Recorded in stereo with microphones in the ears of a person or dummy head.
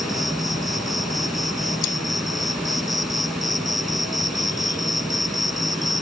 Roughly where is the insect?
Centre.